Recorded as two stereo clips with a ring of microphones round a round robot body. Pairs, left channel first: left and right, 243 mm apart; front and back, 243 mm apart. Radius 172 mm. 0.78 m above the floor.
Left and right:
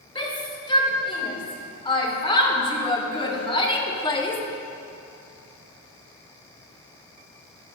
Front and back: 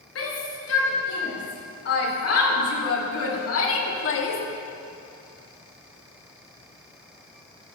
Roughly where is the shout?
Ahead.